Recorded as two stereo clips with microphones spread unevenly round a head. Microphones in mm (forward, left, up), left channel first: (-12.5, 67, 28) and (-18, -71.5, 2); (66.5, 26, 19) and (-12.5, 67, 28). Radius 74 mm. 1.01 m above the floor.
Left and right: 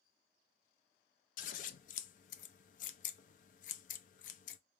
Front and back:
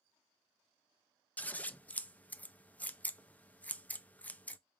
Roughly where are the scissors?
Ahead left.